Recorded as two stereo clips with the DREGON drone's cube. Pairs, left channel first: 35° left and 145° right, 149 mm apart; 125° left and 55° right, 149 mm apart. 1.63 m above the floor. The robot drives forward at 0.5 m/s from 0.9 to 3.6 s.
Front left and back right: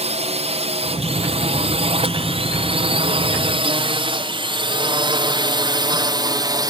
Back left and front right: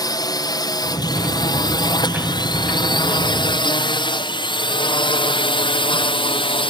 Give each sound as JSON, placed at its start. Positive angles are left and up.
{"t": 0.0, "sound": "a drone", "azimuth_deg": -175}